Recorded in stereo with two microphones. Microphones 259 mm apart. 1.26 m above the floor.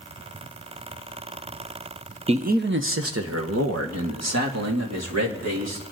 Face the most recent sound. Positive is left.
turn(degrees=-85)